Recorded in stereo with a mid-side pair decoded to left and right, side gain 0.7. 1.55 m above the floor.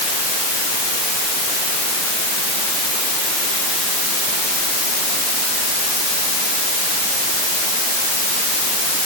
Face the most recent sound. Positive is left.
No sound to turn to.